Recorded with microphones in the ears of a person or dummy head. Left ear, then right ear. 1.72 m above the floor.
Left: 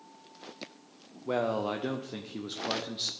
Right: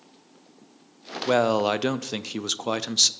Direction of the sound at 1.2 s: 80° right.